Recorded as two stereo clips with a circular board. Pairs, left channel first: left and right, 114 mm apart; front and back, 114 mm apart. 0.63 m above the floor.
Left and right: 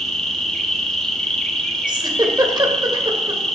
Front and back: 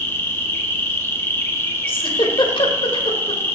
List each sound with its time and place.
0.0 s an insect: 15° left, 1.1 m
1.9 s a giggle: 40° right, 1.1 m